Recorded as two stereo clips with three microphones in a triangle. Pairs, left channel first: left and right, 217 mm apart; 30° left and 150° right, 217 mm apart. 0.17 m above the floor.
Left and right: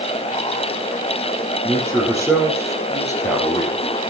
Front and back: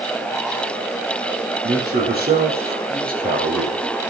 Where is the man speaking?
170° left, 5.5 m; by 3.8 s 160° left, 4.5 m.